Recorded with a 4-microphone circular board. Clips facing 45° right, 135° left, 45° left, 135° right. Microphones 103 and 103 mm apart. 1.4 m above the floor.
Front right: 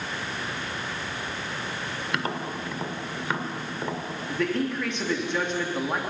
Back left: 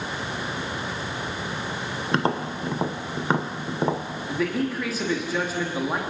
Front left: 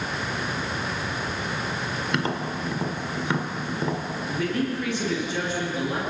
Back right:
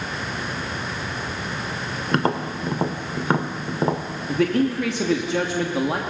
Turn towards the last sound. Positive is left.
turn(degrees=-140)